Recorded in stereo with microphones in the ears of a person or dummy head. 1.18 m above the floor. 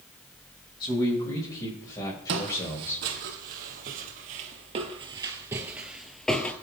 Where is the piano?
I don't hear a piano.